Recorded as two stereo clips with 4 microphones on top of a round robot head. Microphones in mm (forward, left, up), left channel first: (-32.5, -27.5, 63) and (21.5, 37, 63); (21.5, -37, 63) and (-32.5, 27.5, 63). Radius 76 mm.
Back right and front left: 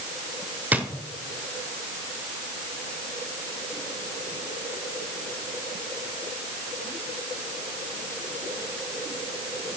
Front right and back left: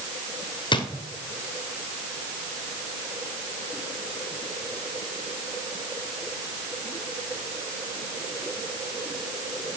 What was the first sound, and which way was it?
A drawer, 20° right.